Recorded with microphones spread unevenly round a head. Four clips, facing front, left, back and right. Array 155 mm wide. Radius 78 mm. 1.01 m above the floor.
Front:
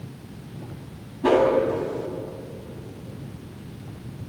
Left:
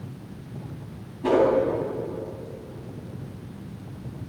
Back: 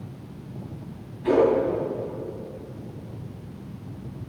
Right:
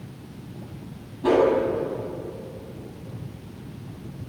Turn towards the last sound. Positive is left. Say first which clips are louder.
# right 1 dB, front 1 dB
turn(degrees=-5)